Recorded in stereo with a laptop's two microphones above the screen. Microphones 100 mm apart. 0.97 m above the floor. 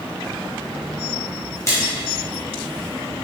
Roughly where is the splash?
Left.